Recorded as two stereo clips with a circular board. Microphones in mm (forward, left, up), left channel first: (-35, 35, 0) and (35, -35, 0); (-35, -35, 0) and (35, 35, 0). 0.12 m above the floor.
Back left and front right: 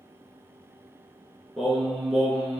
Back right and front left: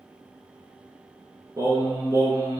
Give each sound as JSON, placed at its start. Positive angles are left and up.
{"t": 1.6, "sound": "singing", "azimuth_deg": 40, "distance_m": 0.8}